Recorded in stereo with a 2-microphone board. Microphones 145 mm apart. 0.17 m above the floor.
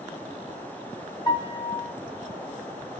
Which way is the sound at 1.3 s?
30° left (ahead or behind).